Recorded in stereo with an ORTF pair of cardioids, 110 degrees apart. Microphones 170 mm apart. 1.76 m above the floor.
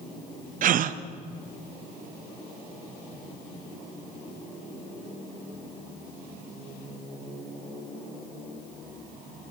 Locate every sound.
0.6 s a gasp: 55° right, 0.8 m